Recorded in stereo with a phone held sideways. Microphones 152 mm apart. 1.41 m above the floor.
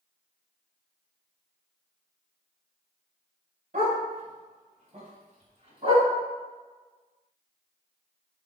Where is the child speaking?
I don't hear a child speaking.